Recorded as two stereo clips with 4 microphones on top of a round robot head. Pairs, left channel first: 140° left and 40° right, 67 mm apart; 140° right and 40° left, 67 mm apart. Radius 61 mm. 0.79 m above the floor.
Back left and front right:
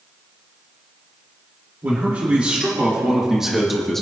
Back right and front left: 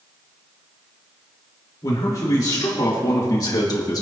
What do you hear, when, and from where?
1.8 s a man speaking: 105° right, 3 m; by 4.0 s 135° right, 1.5 m